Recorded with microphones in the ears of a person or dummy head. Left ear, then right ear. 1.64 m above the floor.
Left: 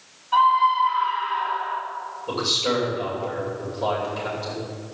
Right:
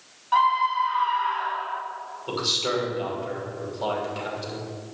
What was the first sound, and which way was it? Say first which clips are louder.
A scream: left 3 dB; 55° right (ahead or behind).